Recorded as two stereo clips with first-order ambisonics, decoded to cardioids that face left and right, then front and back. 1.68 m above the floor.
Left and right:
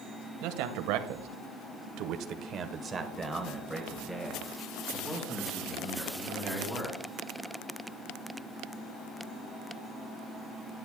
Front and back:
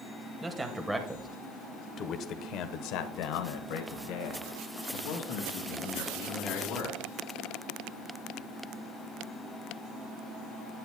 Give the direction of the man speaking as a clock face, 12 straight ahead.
3 o'clock.